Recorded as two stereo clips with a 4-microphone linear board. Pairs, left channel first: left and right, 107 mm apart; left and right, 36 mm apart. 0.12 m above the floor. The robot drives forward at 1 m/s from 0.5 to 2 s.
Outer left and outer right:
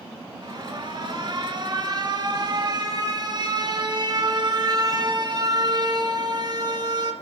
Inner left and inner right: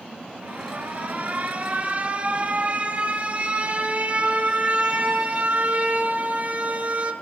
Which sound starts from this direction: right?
An alarm, at 0.4 s.